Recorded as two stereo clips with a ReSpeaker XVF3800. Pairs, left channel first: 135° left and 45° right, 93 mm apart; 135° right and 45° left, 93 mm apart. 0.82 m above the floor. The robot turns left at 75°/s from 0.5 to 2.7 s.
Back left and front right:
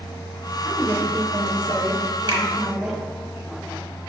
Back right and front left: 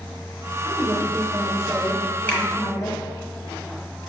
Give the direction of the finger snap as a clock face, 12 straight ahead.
2 o'clock.